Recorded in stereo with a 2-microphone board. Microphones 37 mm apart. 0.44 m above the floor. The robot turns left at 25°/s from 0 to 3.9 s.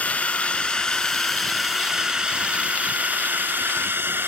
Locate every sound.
0.0 s a drone: 40° left (ahead or behind); by 4.3 s 70° right (ahead or behind)